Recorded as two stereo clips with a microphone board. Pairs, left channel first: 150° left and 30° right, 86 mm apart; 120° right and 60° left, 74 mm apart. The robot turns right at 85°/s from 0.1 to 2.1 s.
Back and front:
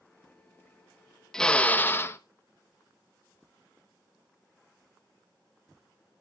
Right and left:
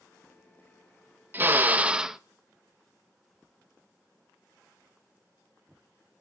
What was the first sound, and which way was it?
A drill, 70° left.